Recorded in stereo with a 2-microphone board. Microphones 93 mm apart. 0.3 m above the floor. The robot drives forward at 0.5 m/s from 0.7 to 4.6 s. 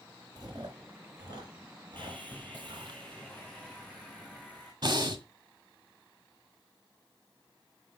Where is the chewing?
50° right (ahead or behind), 5 m; by 3.0 s 60° right (ahead or behind), 4.5 m.